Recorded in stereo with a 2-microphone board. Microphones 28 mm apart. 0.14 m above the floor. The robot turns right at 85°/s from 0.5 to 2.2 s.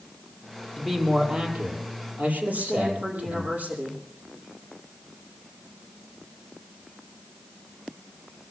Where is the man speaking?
160° left, 4.5 m; by 3.5 s 75° right, 4.5 m.